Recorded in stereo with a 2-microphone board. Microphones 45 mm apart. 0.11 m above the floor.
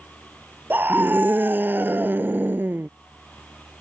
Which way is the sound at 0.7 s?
50° right (ahead or behind).